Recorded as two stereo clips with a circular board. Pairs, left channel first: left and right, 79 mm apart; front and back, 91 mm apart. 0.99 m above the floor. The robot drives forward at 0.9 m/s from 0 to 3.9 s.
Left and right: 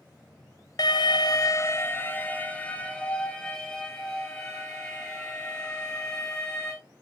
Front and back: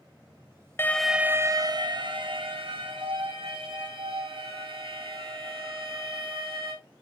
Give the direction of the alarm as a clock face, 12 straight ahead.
10 o'clock.